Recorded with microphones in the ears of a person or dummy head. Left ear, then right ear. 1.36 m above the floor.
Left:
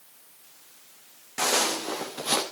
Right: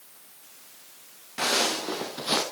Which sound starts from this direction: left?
Footsteps, at 1.4 s.